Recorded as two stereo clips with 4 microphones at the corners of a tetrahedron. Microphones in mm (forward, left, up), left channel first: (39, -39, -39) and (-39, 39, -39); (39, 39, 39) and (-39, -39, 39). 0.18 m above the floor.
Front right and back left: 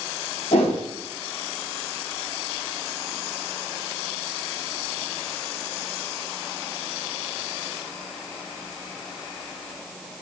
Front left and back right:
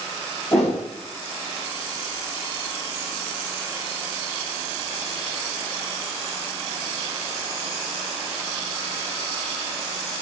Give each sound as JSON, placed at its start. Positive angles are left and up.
{"t": 0.5, "sound": "a whoosh", "azimuth_deg": -35, "distance_m": 4.0}